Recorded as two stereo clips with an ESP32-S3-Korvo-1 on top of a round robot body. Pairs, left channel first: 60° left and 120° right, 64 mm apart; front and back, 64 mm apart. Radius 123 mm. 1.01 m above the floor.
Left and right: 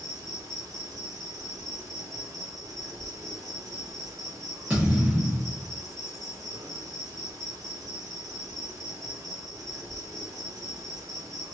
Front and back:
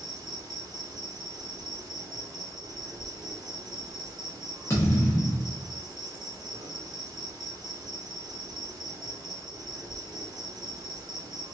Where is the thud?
45° right, 0.5 m.